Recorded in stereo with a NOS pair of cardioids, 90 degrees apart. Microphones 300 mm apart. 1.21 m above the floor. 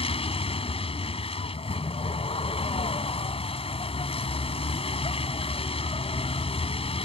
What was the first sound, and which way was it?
A vehicle, 20° left.